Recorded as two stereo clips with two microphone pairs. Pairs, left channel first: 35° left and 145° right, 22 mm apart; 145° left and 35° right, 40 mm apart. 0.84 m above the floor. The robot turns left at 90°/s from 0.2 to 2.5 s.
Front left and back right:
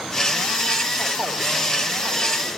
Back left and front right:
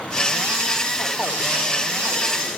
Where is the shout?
I don't hear a shout.